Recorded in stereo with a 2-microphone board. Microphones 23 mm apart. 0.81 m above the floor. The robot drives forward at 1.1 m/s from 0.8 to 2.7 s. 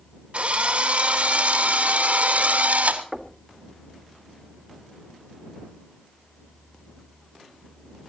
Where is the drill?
55° right (ahead or behind), 3.5 m; by 3.0 s 75° right (ahead or behind), 3 m.